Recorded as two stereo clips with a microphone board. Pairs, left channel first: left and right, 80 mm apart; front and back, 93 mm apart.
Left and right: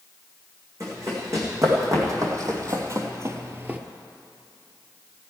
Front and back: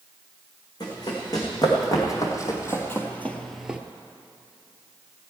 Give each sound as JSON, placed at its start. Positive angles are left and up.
{"t": 0.8, "sound": "running footsteps", "azimuth_deg": -45, "distance_m": 4.0}